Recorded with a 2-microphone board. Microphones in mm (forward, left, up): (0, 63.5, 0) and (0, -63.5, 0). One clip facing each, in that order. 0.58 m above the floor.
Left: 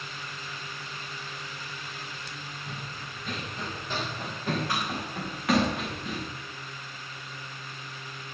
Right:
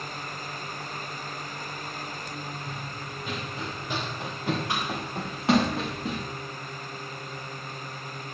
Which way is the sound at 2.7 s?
Centre (ahead or behind).